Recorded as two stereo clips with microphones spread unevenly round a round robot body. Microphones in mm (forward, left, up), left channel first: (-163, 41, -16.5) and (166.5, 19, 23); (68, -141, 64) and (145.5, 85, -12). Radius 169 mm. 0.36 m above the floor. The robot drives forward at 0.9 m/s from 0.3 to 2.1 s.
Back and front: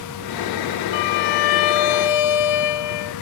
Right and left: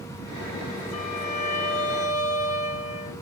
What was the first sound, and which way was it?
A violin, straight behind.